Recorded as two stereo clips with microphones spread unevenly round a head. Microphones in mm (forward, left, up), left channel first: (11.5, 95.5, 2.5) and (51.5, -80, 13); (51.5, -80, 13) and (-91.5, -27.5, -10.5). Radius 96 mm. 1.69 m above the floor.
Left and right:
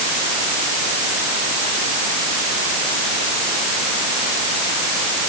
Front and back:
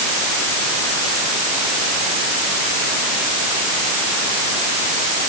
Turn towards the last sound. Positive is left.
No sound to turn to.